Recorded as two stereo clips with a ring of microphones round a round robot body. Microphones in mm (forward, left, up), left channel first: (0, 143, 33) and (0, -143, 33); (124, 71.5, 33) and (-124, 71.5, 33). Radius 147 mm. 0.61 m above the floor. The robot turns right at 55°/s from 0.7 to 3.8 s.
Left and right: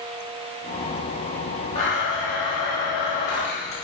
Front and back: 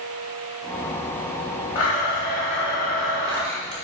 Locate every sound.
1.8 s a blender: 20° left, 3 m; by 3.8 s 135° left, 3 m